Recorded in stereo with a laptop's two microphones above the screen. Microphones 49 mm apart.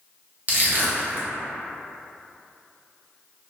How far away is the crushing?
About 0.6 m.